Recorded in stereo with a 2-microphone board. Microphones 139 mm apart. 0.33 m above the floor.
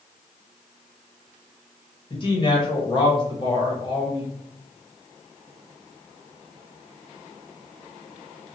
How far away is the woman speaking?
About 1.2 m.